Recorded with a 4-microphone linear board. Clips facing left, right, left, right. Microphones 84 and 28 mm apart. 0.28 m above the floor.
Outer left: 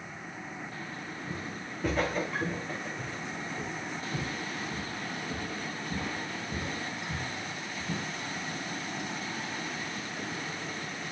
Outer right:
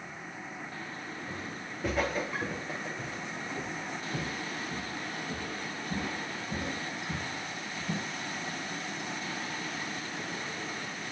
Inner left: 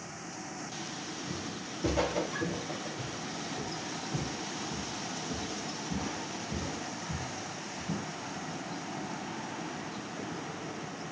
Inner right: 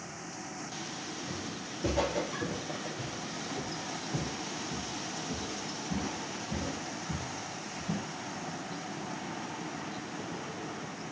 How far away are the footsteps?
About 2 m.